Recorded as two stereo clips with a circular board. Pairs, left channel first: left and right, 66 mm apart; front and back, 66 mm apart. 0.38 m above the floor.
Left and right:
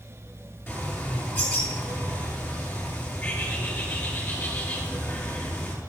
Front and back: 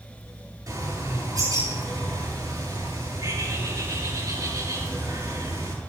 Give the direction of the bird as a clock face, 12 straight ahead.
7 o'clock.